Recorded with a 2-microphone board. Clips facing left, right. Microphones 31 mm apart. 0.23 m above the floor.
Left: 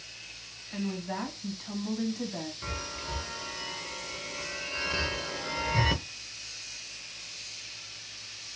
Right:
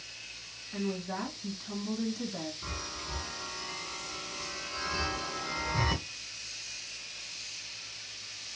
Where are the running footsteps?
I don't hear running footsteps.